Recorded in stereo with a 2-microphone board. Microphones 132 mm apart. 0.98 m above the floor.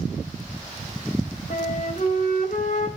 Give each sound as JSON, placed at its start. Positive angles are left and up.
{"t": 1.5, "sound": "a flute", "side_deg": 75, "distance_m": 3.0}